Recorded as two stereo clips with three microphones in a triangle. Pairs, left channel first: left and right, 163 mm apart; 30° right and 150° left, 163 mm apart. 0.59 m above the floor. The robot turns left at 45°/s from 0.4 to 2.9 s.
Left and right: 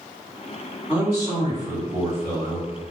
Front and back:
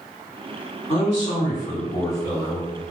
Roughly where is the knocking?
I don't hear knocking.